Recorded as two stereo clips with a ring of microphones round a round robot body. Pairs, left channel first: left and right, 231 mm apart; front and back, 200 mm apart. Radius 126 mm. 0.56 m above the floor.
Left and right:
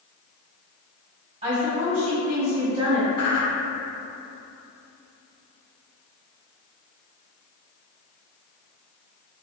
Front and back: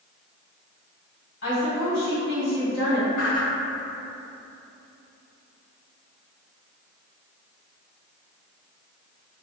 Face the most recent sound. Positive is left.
turn(degrees=30)